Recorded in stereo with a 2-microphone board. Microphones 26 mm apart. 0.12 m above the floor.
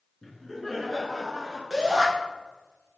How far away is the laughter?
About 1.3 m.